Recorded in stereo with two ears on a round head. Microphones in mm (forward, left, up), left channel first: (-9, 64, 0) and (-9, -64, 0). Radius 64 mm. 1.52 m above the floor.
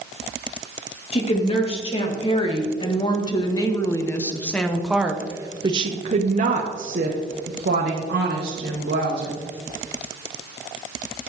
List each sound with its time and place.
1.1 s a woman speaking: 45° left (ahead or behind), 2.5 m; by 9.4 s 85° right, 2 m